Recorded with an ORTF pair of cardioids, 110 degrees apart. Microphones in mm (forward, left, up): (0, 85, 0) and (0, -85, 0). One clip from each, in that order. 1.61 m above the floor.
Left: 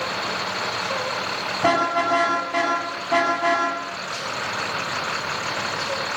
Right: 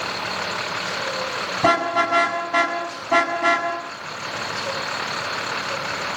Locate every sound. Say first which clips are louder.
1.6 s a car horn: right 1 dB; 30° right, 8 m